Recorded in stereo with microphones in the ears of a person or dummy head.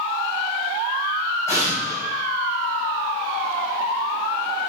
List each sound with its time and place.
1.5 s an explosion: 15° left (ahead or behind), 8.5 m